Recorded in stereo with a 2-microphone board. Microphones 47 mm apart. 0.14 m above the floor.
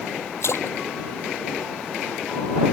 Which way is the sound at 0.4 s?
70° left (ahead or behind).